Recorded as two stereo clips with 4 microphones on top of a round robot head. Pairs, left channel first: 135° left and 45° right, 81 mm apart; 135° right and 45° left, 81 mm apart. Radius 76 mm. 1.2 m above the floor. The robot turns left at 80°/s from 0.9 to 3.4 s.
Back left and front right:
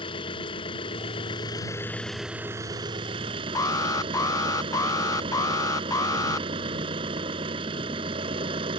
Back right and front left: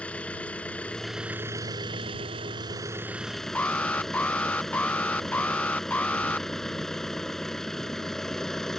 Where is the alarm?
160° left.